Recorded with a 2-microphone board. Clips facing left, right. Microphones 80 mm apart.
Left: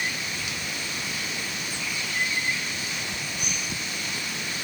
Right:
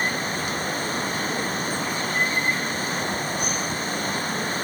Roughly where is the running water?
Right.